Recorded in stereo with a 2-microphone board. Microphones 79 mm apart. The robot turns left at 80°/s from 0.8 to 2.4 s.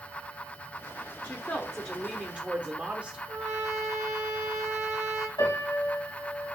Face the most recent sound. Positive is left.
turn(degrees=70)  # may be behind; listen again after turning